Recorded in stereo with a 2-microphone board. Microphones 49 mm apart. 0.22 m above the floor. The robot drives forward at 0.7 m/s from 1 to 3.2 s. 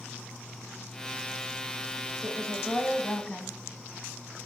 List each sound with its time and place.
2.2 s a woman speaking: 15° left (ahead or behind), 1.4 m; by 3.6 s 20° left (ahead or behind), 1.2 m